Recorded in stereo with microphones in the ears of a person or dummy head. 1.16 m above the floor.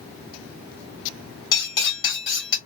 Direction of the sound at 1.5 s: 20° left (ahead or behind).